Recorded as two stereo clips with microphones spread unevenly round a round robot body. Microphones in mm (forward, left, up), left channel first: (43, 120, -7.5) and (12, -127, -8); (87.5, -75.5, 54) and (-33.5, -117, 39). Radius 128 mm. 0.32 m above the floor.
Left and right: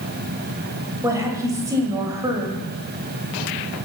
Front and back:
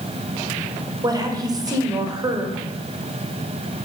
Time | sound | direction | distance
1.0 | a woman speaking | 165° right | 1.7 m